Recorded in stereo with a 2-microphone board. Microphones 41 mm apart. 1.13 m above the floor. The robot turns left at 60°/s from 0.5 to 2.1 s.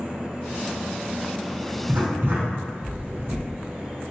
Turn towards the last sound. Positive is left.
turn(degrees=-55)  # may be behind; listen again after turning